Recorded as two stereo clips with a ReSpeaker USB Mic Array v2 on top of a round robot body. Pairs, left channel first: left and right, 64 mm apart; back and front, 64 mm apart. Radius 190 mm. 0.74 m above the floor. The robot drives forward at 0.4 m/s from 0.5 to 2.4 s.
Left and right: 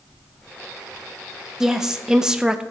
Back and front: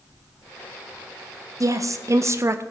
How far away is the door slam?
I don't hear a door slam.